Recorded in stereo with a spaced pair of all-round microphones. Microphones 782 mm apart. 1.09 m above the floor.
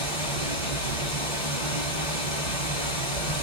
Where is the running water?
60° left (ahead or behind), 1.7 m.